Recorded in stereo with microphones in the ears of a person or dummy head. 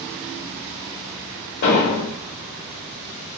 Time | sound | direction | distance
1.6 | an explosion | 55° left (ahead or behind) | 1.6 m